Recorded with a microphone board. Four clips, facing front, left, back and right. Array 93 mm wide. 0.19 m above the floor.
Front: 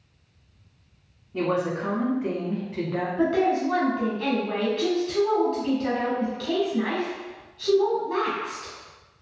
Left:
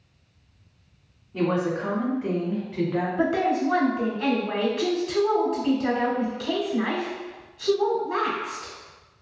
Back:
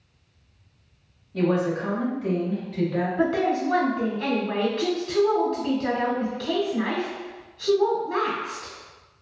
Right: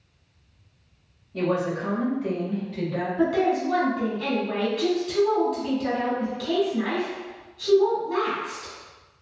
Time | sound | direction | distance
1.3 | a woman speaking | 45° left | 1.2 m
3.2 | a woman speaking | 95° left | 1.1 m